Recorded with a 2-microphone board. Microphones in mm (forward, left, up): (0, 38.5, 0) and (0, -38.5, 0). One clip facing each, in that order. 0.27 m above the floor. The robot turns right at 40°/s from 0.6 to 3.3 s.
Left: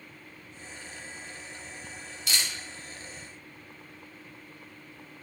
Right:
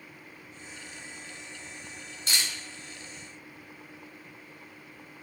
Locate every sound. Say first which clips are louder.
2.3 s a camera shutter: even; 35° right (ahead or behind), 1.8 m; by 2.5 s 30° right (ahead or behind), 1.8 m